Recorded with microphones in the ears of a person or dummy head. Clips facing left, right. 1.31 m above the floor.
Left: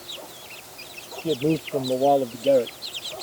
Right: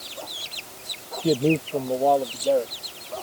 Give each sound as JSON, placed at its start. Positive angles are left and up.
{"t": 1.2, "sound": "a man speaking", "side_deg": -20}